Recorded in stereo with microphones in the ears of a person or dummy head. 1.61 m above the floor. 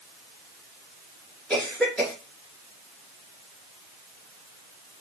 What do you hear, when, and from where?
1.5 s a cough: 10° left (ahead or behind), 3 m